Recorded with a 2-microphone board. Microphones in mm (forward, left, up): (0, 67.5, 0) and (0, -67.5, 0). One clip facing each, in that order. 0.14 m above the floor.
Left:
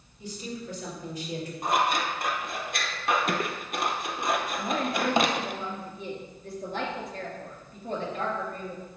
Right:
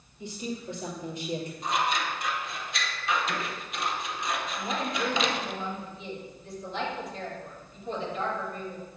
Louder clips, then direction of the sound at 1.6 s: Left 4 dB; 55° left (ahead or behind).